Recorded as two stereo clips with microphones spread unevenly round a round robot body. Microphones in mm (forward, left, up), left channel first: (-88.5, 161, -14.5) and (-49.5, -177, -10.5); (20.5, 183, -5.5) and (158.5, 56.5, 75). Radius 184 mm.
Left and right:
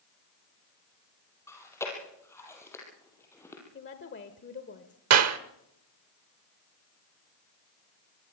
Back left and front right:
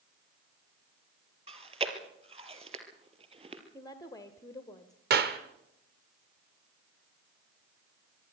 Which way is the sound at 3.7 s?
135° left.